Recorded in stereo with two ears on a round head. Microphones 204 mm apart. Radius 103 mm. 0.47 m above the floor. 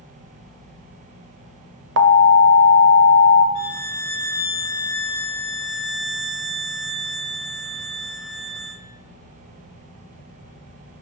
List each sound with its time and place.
2.0 s an alarm: 55° right (ahead or behind), 1.0 m
3.5 s a violin: 70° left (ahead or behind), 4.5 m